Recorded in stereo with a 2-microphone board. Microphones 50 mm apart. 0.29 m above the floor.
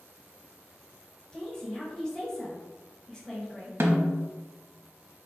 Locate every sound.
1.3 s a woman speaking: 15° left (ahead or behind), 1.2 m
3.8 s a snare drum: 60° right (ahead or behind), 0.6 m